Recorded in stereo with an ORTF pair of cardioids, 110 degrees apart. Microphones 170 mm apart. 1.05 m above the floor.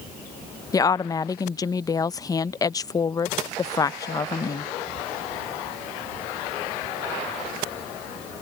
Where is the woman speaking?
20° left.